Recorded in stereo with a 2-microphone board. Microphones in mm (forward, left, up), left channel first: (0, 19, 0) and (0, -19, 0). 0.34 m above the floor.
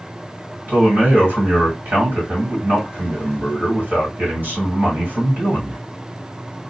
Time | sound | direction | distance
0.7 | a man speaking | 60° right (ahead or behind) | 1.7 m